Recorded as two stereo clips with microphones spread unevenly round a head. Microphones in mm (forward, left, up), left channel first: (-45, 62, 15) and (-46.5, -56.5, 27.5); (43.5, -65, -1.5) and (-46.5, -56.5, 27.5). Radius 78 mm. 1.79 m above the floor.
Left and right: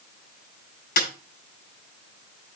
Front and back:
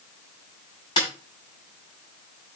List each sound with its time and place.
1.0 s a snare drum: 65° left, 5 m